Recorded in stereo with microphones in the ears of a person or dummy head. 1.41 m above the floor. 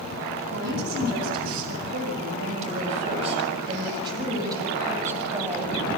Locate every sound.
0.5 s a woman speaking: 65° right (ahead or behind), 8.5 m; by 5.7 s 15° right (ahead or behind), 7.5 m